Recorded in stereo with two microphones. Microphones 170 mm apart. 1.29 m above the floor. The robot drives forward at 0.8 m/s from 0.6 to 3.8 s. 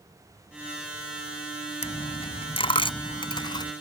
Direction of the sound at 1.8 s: 40° left (ahead or behind).